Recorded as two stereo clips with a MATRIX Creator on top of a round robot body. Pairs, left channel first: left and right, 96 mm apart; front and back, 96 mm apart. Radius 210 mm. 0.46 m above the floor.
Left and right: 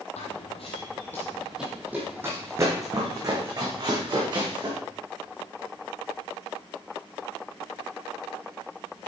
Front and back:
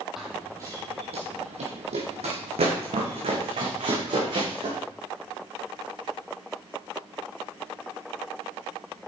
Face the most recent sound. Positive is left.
turn(degrees=-145)